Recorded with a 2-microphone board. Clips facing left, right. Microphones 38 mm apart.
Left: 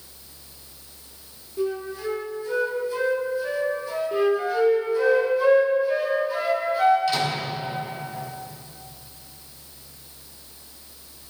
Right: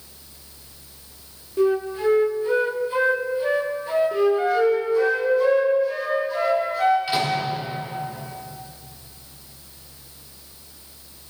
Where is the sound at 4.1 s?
10° left (ahead or behind), 2.5 m.